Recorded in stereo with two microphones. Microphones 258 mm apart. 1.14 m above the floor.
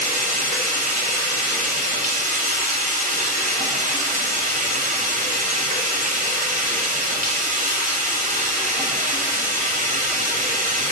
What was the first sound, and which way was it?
Running water, 30° right (ahead or behind).